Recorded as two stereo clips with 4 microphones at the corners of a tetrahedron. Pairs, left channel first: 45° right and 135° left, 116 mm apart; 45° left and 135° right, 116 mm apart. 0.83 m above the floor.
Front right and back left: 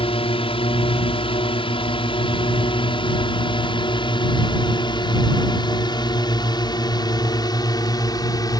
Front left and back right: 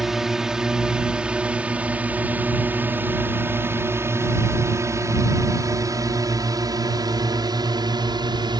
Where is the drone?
50° right; by 8.6 s 95° right.